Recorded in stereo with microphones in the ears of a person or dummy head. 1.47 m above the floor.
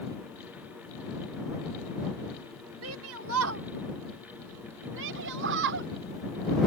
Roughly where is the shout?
Right.